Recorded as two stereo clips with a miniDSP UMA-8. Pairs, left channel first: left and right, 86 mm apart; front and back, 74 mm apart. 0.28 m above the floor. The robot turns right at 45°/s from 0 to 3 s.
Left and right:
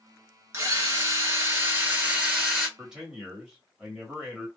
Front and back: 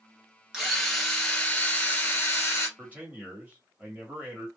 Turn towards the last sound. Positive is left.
turn(degrees=-155)